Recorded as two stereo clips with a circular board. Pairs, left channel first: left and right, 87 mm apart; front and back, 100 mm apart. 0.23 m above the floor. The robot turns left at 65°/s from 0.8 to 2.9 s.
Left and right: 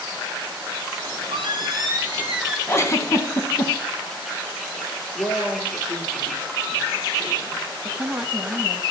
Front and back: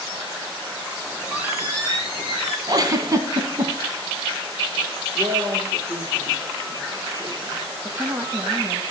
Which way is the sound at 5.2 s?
125° left.